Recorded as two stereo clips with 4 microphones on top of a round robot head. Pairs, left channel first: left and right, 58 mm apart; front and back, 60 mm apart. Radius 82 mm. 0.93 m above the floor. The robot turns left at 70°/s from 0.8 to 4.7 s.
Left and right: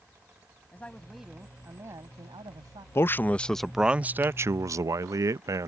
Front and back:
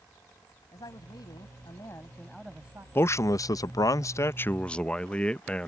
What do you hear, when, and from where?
0.7 s a man speaking: 25° left; by 2.9 s 120° right
3.0 s a man speaking: 50° left; by 5.7 s 75° right